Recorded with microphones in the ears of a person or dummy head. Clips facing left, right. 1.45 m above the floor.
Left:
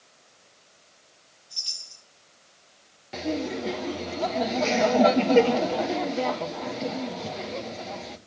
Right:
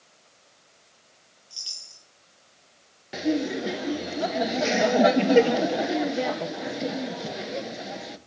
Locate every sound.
1.5 s a chime: 5° right (ahead or behind), 2.0 m
3.1 s laughter: 15° right (ahead or behind), 0.9 m